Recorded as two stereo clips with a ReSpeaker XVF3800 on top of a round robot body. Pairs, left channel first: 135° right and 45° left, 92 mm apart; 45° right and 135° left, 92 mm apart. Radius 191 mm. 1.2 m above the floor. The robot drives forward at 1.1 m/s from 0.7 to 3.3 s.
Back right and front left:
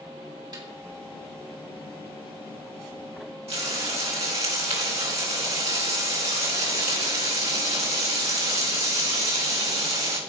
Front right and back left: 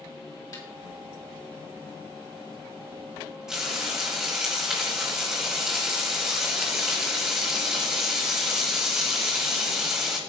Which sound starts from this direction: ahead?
A snare drum, at 0.5 s.